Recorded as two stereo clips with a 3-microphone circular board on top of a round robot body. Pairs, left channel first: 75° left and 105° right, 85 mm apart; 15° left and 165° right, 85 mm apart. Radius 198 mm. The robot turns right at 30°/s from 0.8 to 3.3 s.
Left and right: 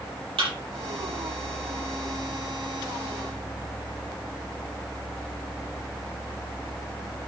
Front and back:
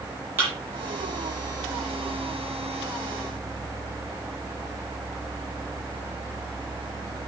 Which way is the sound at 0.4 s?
100° right.